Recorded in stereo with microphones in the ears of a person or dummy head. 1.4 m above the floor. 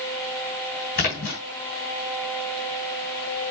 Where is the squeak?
No squeak in this recording.